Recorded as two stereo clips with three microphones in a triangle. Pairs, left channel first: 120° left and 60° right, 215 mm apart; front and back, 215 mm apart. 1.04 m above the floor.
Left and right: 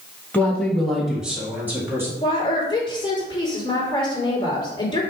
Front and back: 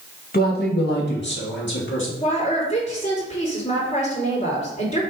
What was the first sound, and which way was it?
A man speaking, 40° left.